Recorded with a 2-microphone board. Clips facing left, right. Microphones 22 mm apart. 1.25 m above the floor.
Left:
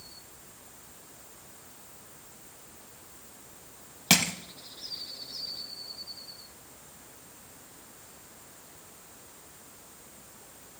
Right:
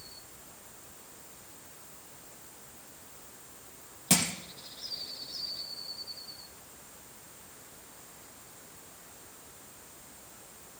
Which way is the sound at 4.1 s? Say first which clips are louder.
Left 5 dB; 35° left (ahead or behind).